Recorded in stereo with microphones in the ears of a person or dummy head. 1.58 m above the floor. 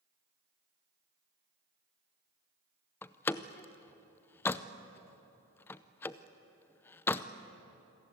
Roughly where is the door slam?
Centre.